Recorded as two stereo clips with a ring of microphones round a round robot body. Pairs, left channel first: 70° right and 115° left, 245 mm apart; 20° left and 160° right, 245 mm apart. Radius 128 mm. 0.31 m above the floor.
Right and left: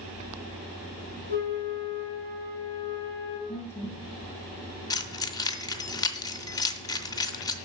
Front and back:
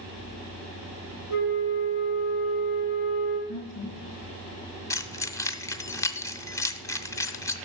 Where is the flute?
65° left, 4.5 m.